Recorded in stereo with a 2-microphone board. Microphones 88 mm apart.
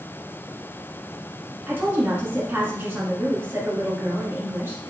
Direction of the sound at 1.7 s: 25° right (ahead or behind).